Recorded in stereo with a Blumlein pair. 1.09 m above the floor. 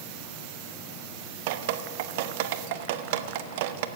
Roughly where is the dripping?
Ahead right.